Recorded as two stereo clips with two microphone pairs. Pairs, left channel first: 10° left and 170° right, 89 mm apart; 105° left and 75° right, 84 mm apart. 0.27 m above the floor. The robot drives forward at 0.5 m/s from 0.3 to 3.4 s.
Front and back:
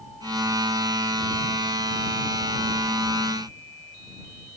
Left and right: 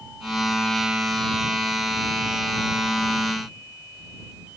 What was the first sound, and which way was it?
Only background noise.